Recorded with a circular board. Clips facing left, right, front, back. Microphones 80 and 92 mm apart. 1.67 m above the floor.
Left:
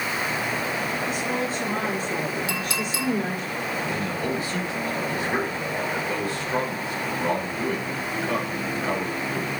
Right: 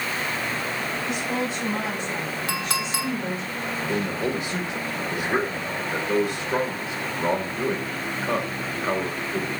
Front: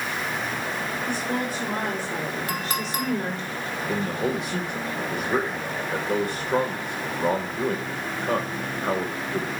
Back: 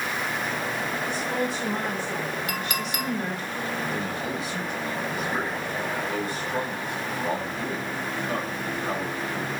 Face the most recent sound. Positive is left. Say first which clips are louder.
# right 5 dB, front 4 dB
turn(degrees=-20)